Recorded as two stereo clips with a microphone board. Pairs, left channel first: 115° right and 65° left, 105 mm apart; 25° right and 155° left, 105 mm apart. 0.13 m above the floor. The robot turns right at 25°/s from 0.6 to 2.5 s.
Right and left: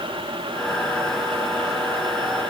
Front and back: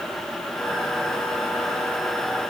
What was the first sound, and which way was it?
Only background noise.